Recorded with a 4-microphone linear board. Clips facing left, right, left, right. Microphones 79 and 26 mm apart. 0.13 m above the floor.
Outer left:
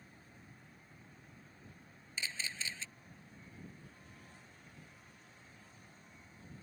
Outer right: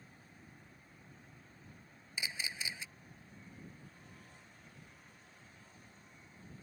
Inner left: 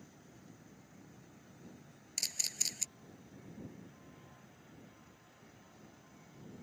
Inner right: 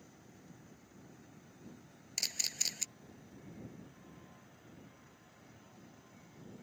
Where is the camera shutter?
15° right (ahead or behind).